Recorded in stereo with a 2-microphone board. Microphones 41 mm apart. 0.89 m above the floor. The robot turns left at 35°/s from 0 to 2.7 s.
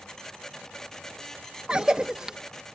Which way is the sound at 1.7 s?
25° right (ahead or behind).